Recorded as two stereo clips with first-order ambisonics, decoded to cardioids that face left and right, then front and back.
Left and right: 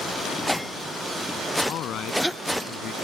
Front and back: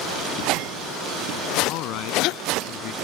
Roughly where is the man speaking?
Ahead left.